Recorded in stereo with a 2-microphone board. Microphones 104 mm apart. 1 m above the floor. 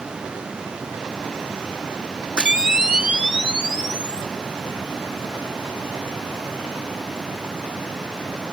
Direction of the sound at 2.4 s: 10° right (ahead or behind).